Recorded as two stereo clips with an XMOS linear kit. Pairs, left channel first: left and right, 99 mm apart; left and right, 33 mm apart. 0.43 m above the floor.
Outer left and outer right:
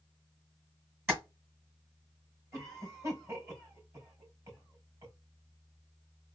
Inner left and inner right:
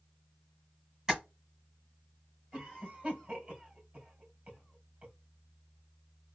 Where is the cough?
30° right (ahead or behind), 2.5 m.